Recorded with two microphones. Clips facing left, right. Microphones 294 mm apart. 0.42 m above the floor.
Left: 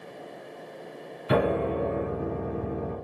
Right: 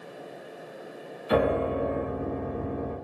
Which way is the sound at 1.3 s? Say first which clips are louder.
Even; 75° left (ahead or behind).